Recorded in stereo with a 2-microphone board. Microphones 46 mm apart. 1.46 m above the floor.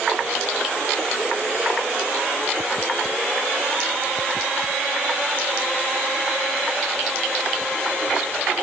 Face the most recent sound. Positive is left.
No sound to turn to.